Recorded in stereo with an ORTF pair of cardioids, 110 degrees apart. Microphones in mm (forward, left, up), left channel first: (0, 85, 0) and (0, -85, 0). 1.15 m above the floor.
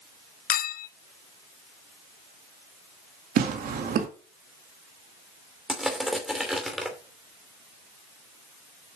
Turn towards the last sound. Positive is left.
turn(degrees=0)